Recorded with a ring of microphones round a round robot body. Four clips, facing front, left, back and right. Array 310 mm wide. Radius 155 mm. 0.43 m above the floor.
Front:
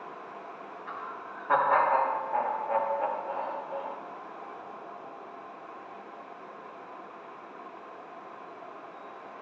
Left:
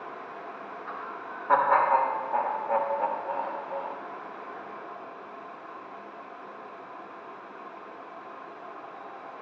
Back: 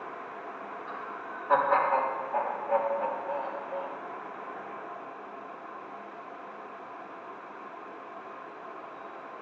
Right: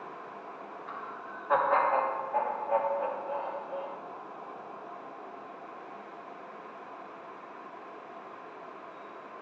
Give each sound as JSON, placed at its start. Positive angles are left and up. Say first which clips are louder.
{"t": 0.9, "sound": "laughter", "louder": "left 3 dB, back 1 dB", "azimuth_deg": 75, "distance_m": 1.3}